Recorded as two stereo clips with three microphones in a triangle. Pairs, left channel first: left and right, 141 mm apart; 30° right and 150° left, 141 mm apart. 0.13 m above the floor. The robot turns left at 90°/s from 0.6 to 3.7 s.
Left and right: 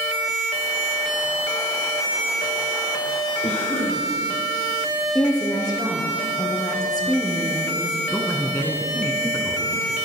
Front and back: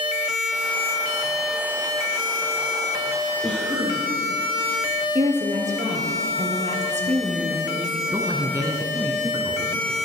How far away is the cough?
About 4 m.